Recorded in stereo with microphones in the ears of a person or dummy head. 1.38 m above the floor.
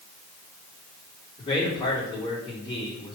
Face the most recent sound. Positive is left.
turn(degrees=20)  # may be behind; listen again after turning